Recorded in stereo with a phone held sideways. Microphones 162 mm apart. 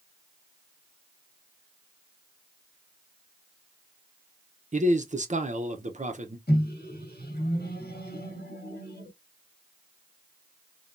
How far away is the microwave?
About 1.2 m.